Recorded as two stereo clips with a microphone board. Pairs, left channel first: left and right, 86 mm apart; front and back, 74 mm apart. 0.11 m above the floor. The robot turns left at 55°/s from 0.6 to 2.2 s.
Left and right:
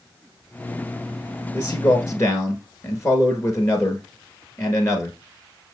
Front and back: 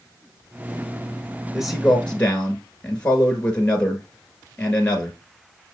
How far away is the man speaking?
About 1.4 m.